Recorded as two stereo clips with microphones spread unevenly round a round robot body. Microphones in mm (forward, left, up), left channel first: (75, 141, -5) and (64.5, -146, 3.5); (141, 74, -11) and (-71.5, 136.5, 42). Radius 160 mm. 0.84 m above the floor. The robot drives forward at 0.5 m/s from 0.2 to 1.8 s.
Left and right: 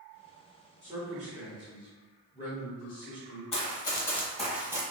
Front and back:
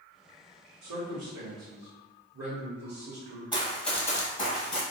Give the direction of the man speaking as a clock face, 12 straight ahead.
6 o'clock.